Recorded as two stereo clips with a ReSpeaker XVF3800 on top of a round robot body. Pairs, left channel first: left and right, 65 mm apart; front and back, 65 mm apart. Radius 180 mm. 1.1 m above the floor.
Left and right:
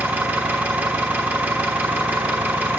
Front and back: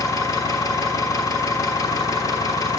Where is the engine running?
25° right, 1.1 m.